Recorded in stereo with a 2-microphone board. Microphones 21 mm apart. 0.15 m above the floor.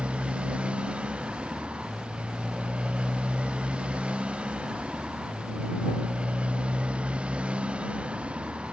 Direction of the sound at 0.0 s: 85° right.